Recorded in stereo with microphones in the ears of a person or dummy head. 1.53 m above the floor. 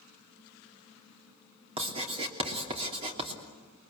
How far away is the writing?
About 3 m.